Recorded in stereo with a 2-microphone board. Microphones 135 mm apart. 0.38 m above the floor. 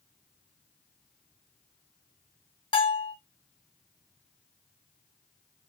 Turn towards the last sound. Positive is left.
turn(degrees=35)  # may be behind; listen again after turning